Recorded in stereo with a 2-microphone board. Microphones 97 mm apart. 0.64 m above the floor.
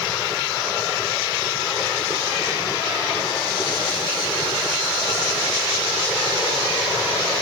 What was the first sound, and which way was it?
Only background noise.